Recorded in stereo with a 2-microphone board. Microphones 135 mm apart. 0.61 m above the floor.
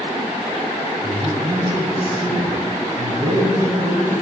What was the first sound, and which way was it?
A man speaking, 35° right (ahead or behind).